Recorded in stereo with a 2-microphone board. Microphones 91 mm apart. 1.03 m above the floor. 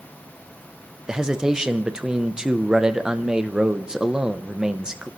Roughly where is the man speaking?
Centre.